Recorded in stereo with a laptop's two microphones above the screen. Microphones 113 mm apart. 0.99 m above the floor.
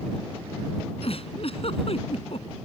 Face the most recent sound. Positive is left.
turn(degrees=60)  # may be behind; listen again after turning